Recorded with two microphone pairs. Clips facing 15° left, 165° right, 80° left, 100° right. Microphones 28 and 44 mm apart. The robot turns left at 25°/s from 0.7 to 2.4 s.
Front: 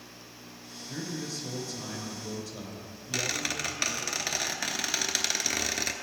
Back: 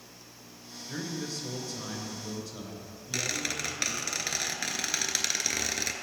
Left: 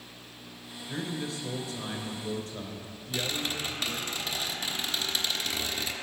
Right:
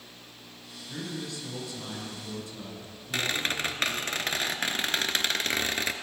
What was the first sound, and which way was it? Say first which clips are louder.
A man speaking: back 1 dB, left 2 dB; 150° left.